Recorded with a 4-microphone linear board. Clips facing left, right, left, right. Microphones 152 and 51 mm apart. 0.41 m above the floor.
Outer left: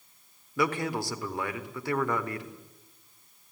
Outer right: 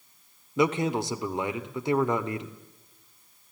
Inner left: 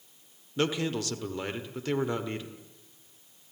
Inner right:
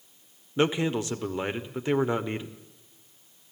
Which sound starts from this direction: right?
A man speaking, at 0.6 s.